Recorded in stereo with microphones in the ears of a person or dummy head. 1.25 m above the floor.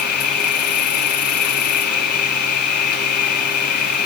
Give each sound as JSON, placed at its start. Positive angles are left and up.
{"t": 0.0, "sound": "an insect", "side_deg": 45}